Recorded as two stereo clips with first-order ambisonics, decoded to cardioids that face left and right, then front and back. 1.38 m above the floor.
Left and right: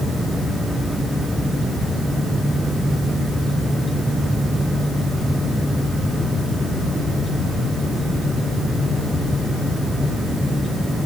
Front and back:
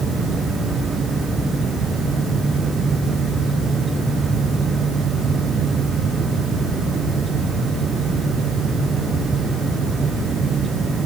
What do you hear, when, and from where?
Only background noise.